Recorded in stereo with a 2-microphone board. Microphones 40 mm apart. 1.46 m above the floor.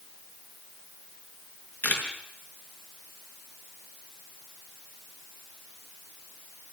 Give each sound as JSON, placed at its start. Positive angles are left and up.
{"t": 1.8, "sound": "a camera shutter", "side_deg": 40, "distance_m": 5.0}